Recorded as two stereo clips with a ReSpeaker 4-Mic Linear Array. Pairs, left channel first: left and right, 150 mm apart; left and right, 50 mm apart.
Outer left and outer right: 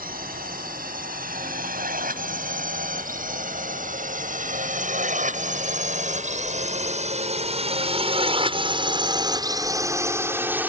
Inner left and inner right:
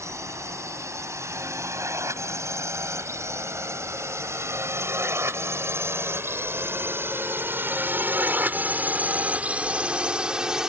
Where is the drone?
75° right (ahead or behind); by 10.7 s 10° right (ahead or behind).